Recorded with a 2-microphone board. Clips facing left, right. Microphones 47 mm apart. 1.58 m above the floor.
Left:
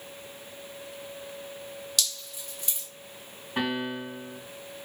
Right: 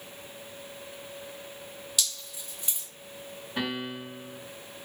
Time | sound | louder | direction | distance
2.0 | dripping | even | 10° right (ahead or behind) | 2 m
3.6 | a piano | left 3 dB | 30° left (ahead or behind) | 1.8 m